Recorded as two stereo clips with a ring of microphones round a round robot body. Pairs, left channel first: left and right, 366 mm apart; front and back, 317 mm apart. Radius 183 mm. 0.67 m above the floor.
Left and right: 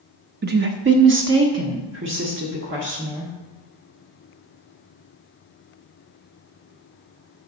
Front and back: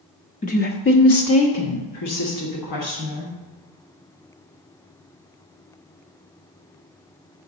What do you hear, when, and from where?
0.4 s a woman speaking: 50° right, 0.6 m; by 3.3 s 30° right, 1.8 m